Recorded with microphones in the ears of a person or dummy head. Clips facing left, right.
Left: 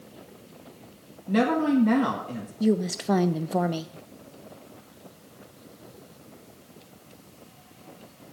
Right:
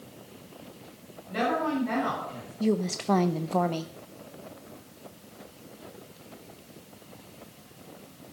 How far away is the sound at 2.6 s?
About 0.5 m.